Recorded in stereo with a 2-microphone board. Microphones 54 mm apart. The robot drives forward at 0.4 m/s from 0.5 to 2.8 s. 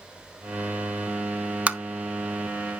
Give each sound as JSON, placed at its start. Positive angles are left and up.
{"t": 1.7, "sound": "tapping", "side_deg": -25, "distance_m": 0.6}